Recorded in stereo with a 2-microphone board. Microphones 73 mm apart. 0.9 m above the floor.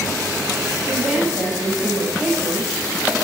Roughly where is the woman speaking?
Centre.